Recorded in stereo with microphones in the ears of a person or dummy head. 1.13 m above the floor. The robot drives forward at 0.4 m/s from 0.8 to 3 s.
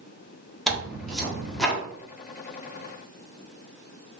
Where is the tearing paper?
Centre (ahead or behind), 1.0 m.